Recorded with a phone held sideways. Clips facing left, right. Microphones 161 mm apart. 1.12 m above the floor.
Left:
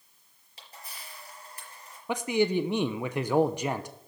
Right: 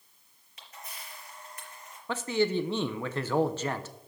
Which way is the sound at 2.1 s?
15° left (ahead or behind).